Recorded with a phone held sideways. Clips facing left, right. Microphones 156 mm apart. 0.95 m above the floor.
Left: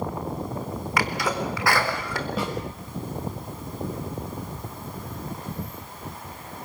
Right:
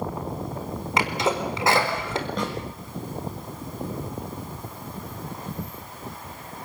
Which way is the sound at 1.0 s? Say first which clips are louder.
Right 2 dB; 25° right (ahead or behind).